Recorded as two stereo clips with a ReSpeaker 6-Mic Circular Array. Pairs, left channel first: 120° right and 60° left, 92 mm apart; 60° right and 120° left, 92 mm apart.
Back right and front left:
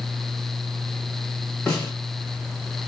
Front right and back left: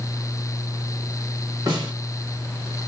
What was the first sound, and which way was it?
A snare drum, 160° left.